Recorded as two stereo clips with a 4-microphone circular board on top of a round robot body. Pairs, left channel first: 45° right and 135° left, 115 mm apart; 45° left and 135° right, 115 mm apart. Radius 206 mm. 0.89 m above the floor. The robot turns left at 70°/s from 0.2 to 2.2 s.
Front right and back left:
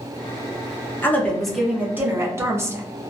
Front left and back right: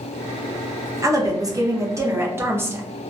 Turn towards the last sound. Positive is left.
turn(degrees=180)